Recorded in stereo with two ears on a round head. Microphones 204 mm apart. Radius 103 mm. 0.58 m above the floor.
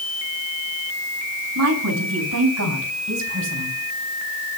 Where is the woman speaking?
80° right, 5.5 m; by 3.8 s 50° right (ahead or behind), 4.5 m.